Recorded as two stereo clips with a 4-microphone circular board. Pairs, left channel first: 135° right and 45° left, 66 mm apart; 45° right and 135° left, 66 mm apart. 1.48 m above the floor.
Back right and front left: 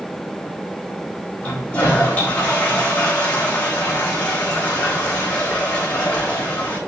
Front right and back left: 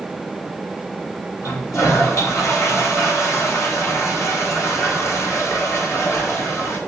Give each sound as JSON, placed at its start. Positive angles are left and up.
{"t": 1.4, "sound": "a toilet flushing", "azimuth_deg": -75, "distance_m": 2.5}